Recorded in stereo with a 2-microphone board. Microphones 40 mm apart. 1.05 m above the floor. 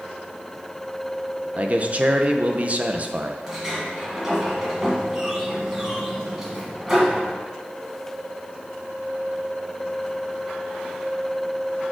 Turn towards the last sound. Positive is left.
turn(degrees=-15)  # may be behind; listen again after turning